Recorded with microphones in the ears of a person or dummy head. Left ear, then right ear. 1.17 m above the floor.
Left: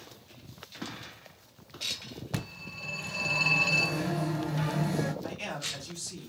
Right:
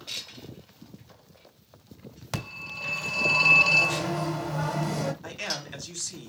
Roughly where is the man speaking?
Right.